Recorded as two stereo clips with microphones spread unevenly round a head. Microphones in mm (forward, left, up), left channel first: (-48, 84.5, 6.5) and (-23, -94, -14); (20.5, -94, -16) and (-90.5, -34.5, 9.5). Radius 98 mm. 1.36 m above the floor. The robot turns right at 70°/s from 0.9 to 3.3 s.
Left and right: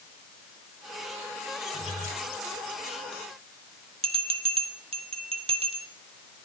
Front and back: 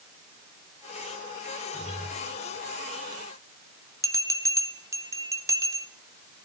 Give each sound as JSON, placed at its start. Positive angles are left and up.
{"t": 1.7, "sound": "a guitar", "azimuth_deg": 25, "distance_m": 4.0}
{"t": 4.0, "sound": "a bell", "azimuth_deg": -140, "distance_m": 1.6}